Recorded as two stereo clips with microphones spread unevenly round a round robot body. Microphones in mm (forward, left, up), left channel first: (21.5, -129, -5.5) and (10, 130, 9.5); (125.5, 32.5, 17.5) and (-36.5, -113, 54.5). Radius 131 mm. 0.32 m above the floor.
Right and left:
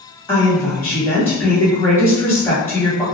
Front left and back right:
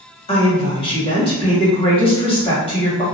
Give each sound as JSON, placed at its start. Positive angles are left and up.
{"t": 0.3, "sound": "a woman speaking", "azimuth_deg": -10, "distance_m": 1.8}